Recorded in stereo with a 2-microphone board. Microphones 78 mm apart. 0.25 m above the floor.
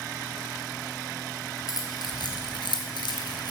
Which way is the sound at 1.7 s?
55° left (ahead or behind).